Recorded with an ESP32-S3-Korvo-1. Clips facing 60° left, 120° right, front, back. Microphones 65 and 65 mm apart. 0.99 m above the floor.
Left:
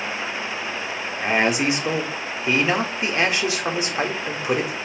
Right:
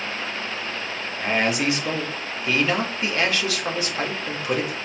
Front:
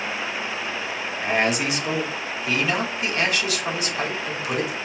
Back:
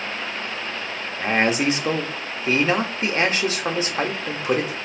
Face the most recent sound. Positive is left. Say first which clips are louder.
# left 2 dB, back 2 dB
turn(degrees=130)